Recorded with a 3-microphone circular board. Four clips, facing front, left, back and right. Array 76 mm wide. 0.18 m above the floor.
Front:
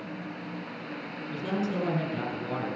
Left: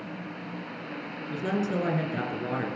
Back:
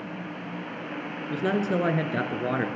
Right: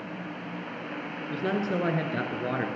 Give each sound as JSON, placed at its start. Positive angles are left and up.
{"t": 1.3, "sound": "a man speaking", "azimuth_deg": -165, "distance_m": 2.5}